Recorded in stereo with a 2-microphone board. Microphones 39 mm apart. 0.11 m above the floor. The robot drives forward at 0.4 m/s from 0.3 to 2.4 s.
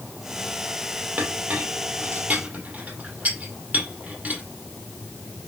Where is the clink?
50° right (ahead or behind), 2.5 m; by 4.4 s 45° right (ahead or behind), 2.5 m.